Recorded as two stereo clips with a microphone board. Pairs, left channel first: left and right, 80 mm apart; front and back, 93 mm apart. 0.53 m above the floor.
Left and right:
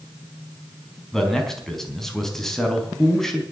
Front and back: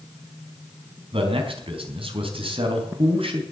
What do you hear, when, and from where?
1.1 s a man speaking: 175° left, 4 m